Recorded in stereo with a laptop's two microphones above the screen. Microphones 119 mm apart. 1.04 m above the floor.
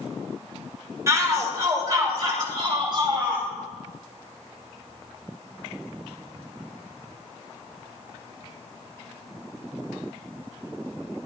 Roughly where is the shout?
Right.